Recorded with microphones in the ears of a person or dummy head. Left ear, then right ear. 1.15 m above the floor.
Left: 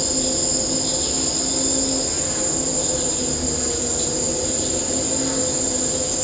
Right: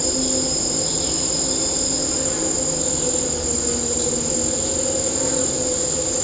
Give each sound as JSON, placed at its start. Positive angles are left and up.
{"t": 0.0, "sound": "an insect", "side_deg": 10, "distance_m": 1.3}